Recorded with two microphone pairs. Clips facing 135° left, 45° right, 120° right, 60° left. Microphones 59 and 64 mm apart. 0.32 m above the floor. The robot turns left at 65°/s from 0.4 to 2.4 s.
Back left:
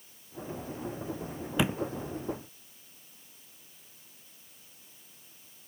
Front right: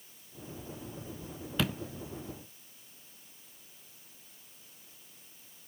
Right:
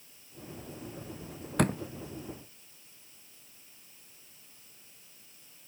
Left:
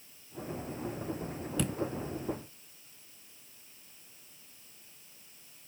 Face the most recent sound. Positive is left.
turn(degrees=155)